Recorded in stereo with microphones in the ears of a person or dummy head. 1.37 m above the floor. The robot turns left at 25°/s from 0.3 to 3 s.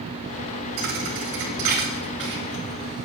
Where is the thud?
45° right (ahead or behind), 1.8 m; by 3.1 s 15° right (ahead or behind), 1.8 m.